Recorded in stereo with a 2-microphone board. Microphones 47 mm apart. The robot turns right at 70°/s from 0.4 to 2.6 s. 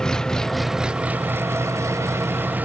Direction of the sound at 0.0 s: 165° left.